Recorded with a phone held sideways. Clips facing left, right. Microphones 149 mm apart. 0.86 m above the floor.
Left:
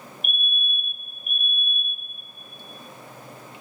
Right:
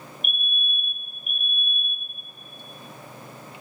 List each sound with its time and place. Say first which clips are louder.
0.2 s a fire alarm: left 2 dB; centre (ahead or behind), 3 m